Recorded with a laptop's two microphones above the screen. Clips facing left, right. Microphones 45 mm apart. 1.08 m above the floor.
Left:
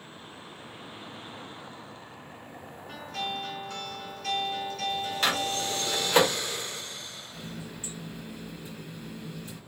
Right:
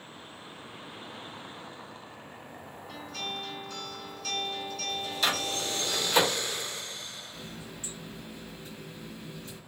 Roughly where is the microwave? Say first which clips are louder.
Left 1 dB; left.